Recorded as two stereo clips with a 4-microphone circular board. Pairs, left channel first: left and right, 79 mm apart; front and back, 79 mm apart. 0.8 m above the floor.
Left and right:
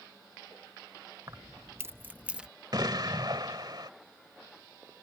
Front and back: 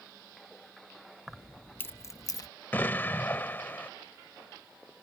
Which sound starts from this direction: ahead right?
An explosion, at 2.7 s.